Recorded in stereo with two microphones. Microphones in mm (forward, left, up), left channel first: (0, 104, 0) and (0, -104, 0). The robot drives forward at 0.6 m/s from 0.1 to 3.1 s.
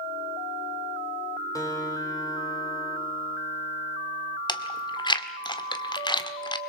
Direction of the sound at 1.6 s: 15° left (ahead or behind).